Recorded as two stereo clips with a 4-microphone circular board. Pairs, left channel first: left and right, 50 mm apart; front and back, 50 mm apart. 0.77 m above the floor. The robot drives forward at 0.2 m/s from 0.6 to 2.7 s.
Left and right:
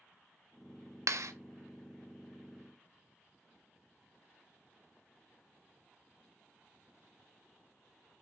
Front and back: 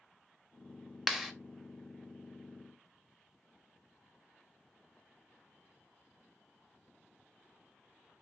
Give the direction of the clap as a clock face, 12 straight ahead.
3 o'clock.